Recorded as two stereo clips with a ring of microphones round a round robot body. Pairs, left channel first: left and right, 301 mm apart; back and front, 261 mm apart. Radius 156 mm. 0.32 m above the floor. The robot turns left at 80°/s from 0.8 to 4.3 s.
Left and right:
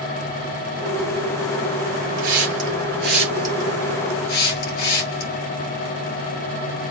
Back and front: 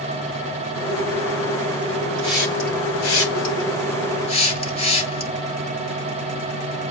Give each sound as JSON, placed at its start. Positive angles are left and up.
{"t": 2.2, "sound": "a hiss", "azimuth_deg": -75, "distance_m": 7.0}